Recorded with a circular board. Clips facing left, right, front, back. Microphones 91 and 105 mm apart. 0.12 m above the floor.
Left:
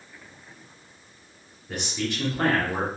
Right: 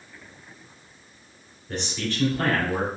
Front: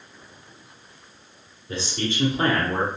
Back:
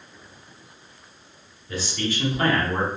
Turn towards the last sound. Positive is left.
turn(degrees=65)